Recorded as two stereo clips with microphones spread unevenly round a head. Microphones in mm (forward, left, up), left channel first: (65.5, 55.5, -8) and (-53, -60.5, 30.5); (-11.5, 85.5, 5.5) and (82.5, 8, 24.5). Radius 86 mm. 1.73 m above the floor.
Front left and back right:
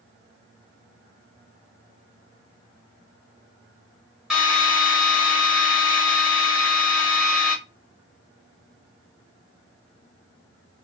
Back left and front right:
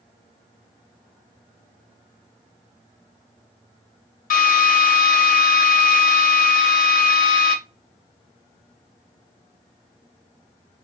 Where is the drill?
140° left, 1.3 m.